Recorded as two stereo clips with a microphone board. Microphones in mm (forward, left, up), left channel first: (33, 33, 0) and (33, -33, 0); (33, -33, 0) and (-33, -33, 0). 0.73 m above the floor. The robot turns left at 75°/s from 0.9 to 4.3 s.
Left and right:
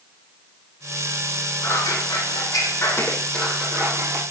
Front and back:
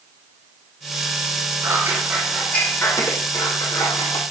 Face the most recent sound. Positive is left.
turn(degrees=-65)